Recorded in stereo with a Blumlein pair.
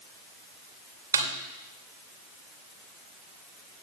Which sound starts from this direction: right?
A snare drum, at 1.1 s.